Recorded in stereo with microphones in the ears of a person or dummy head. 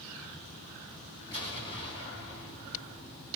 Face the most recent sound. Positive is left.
turn(degrees=25)  # may be behind; listen again after turning